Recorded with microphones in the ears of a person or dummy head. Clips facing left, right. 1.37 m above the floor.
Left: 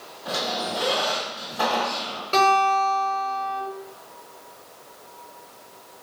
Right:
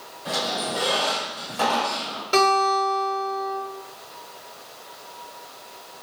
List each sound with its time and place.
0.2 s a squeak: 30° right (ahead or behind), 1.9 m
2.3 s a guitar: 10° right (ahead or behind), 1.4 m